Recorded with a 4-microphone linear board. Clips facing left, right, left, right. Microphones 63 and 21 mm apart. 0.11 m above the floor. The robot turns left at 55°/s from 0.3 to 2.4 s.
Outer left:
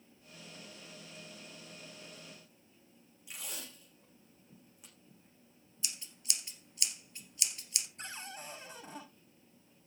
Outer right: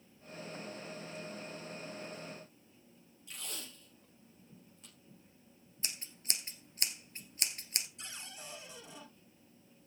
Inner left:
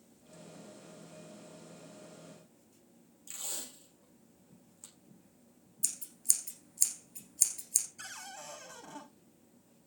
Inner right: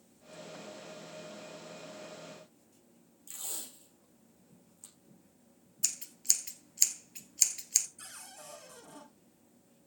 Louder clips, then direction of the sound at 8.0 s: Outer left 4 dB, inner left 4 dB; 45° left (ahead or behind).